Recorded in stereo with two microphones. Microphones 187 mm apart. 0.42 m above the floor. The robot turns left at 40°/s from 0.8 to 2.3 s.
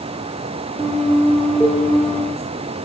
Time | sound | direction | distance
1.6 | a cowbell | 10° right (ahead or behind) | 9 m